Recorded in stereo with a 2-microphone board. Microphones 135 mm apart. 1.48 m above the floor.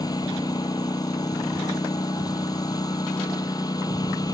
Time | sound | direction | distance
0.0 | a lawn mower | 30° left (ahead or behind) | ?